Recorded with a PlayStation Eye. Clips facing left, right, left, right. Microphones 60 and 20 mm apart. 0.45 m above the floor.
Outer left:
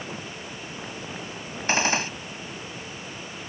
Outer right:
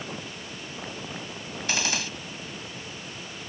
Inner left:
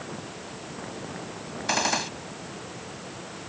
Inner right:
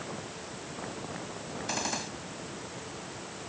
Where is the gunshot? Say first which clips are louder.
Outer left 6 dB, inner left 9 dB; 35° left (ahead or behind).